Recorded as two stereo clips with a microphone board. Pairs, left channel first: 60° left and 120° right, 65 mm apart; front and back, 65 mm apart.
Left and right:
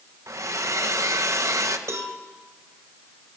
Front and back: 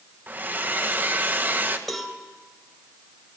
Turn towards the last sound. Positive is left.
turn(degrees=-85)